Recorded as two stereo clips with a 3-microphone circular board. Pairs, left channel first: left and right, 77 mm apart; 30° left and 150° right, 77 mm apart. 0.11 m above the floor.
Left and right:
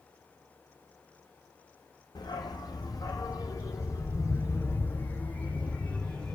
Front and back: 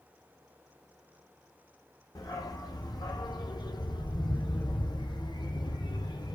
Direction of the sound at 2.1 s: 65° left.